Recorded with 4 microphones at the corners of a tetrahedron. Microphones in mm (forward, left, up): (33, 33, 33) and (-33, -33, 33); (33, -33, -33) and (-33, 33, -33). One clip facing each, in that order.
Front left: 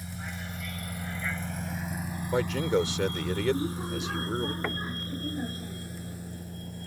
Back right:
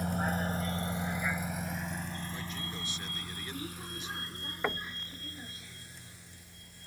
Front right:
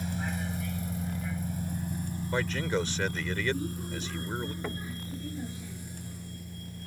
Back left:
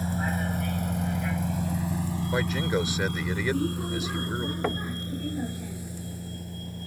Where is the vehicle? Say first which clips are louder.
Back right 8 dB, back left 5 dB; 175° right; by 6.9 s 90° left.